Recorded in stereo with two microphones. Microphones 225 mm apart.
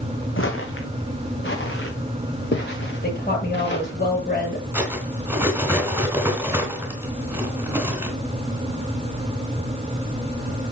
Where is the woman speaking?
40° left (ahead or behind), 7.5 m.